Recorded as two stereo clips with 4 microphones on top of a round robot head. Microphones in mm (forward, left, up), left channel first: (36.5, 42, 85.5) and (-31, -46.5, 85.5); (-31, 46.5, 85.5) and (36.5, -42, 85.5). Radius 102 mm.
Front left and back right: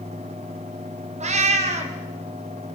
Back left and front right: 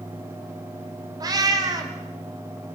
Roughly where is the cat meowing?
Right.